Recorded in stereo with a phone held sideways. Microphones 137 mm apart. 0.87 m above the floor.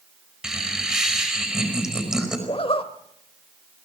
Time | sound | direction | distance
0.4 | laughter | 5° right (ahead or behind) | 5 m
2.5 | a zipper | 45° left (ahead or behind) | 1.2 m